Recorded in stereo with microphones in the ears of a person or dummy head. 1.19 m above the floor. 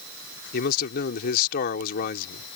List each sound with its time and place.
0.5 s a man speaking: 55° left (ahead or behind)